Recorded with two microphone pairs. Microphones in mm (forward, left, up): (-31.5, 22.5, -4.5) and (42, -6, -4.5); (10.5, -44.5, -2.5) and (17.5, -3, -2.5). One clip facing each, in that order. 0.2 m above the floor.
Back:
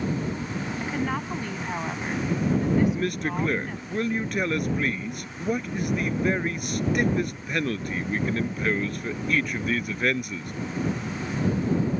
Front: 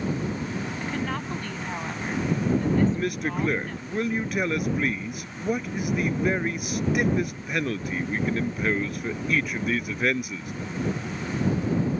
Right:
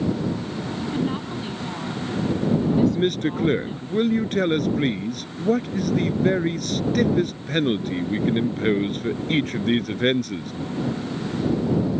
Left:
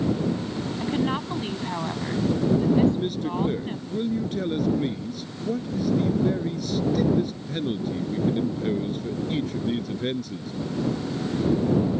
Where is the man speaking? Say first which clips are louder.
Even, right 2 dB; 110° right.